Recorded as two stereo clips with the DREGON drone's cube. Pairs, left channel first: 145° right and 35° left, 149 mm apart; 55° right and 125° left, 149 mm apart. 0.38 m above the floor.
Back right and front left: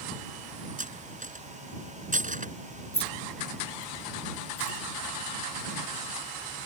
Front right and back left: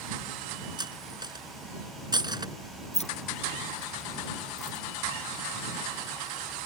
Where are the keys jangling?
95° right.